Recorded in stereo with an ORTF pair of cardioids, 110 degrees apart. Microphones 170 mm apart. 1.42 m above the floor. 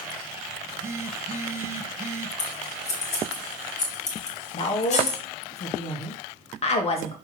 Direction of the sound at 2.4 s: 40° left.